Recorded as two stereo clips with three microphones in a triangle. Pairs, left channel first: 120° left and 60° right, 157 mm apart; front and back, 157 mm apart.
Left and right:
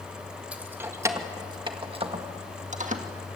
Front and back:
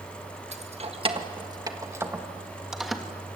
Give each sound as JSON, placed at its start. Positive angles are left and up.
{"t": 0.5, "sound": "keys jangling", "azimuth_deg": -140, "distance_m": 1.6}